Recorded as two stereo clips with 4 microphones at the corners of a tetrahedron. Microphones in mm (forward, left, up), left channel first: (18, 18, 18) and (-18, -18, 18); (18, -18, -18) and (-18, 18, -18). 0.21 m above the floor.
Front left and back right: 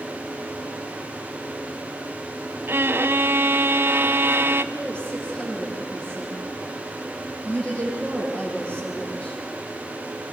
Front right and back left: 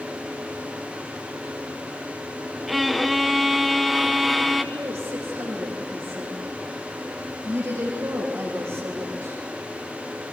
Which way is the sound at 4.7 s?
115° left.